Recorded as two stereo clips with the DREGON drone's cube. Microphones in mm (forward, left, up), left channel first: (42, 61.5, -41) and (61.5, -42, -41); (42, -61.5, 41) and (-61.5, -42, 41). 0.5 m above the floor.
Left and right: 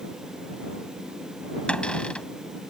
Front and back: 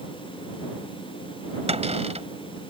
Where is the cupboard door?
Straight behind.